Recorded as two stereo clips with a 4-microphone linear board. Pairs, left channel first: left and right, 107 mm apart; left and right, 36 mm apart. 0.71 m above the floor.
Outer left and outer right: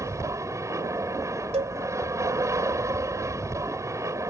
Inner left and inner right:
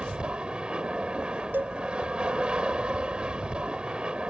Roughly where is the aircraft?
Right.